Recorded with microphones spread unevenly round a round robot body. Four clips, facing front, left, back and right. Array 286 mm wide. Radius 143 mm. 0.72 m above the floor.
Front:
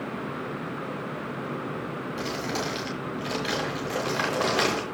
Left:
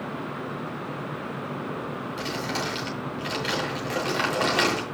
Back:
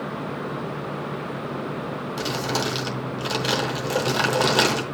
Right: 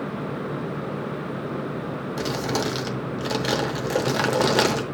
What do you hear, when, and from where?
2.2 s crumpling: 110° right, 0.8 m